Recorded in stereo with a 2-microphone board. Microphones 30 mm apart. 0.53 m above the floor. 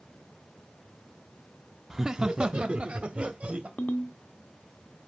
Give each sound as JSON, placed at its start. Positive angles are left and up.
{"t": 1.9, "sound": "laughter", "side_deg": -20, "distance_m": 0.7}
{"t": 3.8, "sound": "a ringtone", "side_deg": 65, "distance_m": 0.9}